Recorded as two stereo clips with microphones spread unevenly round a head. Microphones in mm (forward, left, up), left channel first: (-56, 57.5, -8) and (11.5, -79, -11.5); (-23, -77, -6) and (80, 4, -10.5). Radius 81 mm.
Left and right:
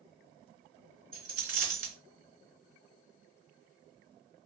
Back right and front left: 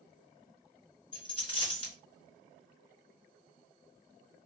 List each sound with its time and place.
1.1 s a dropped coin: 95° right, 1.9 m